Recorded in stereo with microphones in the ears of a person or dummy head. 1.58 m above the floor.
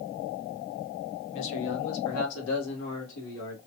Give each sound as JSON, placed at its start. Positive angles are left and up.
{"t": 1.3, "sound": "a man speaking", "side_deg": 60, "distance_m": 1.6}